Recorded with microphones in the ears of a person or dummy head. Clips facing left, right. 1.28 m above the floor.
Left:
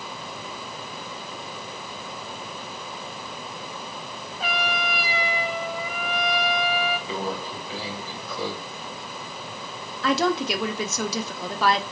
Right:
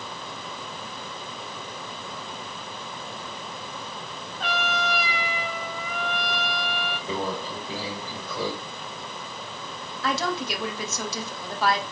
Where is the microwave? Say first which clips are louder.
Even; 45° right (ahead or behind), 3 m.